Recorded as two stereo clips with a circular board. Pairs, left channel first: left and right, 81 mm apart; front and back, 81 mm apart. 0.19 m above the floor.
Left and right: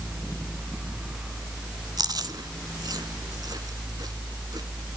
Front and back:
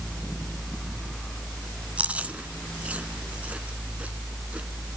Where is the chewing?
110° right, 1.1 m.